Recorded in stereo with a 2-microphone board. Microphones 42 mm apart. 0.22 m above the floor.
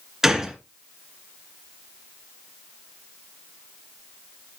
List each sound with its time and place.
0.2 s a gunshot: 10° right (ahead or behind), 1.3 m